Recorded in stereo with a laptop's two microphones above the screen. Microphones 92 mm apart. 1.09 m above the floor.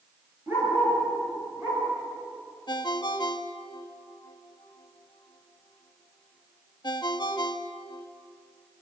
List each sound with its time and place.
0.5 s a dog barking: 25° right (ahead or behind), 6.5 m; by 1.8 s 15° right (ahead or behind), 4.5 m
2.7 s a ringtone: 50° left (ahead or behind), 0.9 m